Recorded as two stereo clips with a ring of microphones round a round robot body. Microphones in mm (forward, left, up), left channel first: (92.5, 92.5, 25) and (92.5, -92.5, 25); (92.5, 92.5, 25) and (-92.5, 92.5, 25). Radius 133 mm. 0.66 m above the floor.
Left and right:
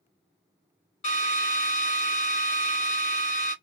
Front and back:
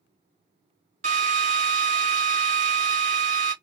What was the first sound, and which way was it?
A drill, 140° left.